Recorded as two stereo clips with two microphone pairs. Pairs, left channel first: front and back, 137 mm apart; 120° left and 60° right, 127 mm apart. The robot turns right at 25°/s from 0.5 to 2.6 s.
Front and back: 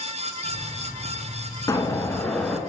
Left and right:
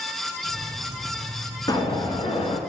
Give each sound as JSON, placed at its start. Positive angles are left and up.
{"t": 1.7, "sound": "an explosion", "azimuth_deg": 65, "distance_m": 0.8}